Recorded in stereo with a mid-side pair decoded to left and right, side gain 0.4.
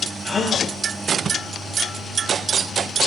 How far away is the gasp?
About 3.5 m.